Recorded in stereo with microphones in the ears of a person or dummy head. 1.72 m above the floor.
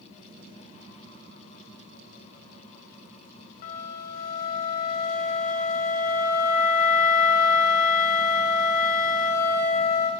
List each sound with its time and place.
3.6 s a flute: 50° left (ahead or behind), 1.9 m